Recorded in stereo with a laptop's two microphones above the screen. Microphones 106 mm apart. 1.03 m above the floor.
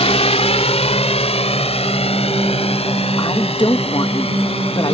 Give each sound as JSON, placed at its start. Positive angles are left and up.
{"t": 0.0, "sound": "a drone", "side_deg": 75}
{"t": 3.2, "sound": "a woman speaking", "side_deg": 45}